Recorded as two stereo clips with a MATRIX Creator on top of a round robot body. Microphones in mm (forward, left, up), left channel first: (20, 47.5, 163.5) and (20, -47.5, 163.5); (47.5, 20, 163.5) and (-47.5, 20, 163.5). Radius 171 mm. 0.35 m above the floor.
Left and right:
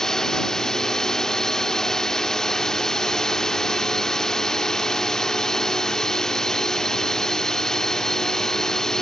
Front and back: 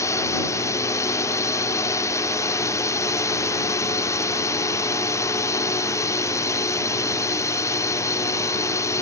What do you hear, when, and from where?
0.0 s a drone: 10° left